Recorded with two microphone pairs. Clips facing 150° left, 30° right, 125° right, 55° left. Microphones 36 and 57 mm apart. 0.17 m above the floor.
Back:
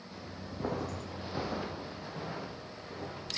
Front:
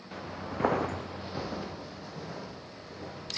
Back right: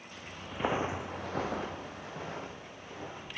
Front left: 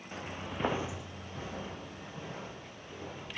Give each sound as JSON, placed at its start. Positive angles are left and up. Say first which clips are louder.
{"t": 0.1, "sound": "footsteps", "louder": "front 7 dB, front left 3 dB", "azimuth_deg": -10, "distance_m": 1.1}